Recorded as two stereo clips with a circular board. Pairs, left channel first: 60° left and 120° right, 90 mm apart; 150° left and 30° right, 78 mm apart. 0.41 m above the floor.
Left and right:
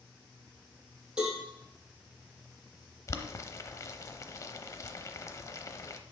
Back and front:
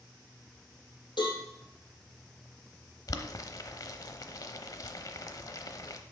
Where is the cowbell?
160° left, 4.5 m.